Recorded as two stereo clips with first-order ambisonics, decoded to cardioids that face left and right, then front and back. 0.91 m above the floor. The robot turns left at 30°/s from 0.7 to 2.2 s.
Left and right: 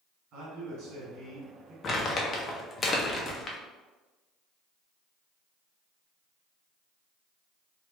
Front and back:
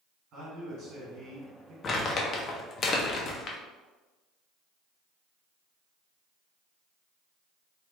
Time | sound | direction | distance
0.3 | a man speaking | 130° right | 1.5 m
1.8 | crumpling | 45° left | 0.6 m